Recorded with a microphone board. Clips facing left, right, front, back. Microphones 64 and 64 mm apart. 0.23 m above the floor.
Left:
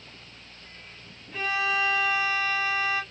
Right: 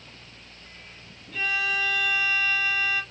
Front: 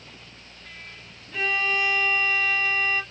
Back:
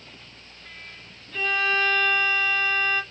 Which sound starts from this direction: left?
A violin, at 1.3 s.